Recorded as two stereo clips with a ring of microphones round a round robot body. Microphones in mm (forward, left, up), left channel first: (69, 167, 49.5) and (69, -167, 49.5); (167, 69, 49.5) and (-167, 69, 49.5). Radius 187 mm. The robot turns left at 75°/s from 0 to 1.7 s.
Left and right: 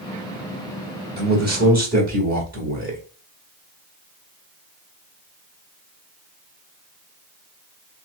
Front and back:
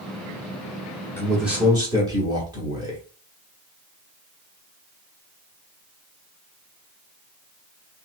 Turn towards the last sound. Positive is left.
turn(degrees=-115)